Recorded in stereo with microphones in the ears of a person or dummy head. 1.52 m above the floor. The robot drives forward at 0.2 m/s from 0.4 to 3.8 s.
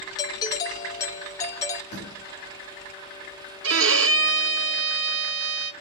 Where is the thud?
45° left (ahead or behind), 7 m.